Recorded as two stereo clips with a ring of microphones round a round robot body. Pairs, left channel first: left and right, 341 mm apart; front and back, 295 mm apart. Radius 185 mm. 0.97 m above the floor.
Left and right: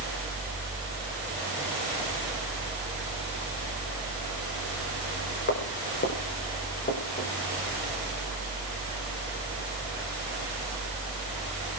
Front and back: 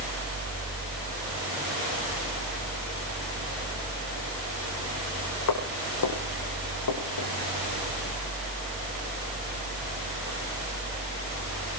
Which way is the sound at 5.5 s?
30° left.